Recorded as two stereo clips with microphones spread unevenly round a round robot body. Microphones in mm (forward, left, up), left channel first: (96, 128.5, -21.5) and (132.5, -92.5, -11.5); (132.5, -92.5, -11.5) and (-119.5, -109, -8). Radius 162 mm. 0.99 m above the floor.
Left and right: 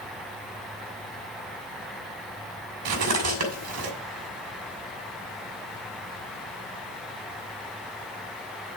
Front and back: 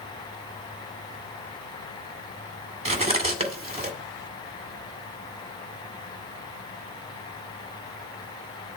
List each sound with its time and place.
2.9 s cutlery clinking: 110° right, 2.0 m